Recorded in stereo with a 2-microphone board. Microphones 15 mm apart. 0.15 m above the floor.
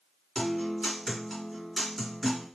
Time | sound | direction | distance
0.3 | a guitar | 15° left (ahead or behind) | 2 m